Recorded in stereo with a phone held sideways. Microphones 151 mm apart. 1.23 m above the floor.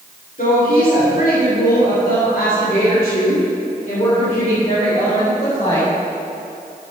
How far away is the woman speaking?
About 3.5 m.